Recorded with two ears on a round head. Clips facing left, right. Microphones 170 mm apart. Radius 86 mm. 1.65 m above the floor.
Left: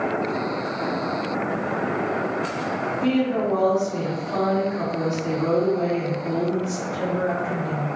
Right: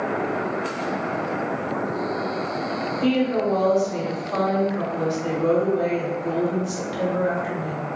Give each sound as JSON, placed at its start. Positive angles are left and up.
{"t": 3.0, "sound": "a woman speaking", "side_deg": -65, "distance_m": 1.5}